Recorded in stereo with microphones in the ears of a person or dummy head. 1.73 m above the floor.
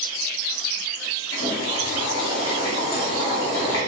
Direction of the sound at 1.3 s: 80° left.